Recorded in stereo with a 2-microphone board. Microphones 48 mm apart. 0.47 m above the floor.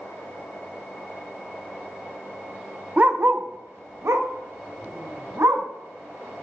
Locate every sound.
3.0 s a dog barking: 30° right (ahead or behind), 0.6 m; by 5.7 s 75° right (ahead or behind), 1.7 m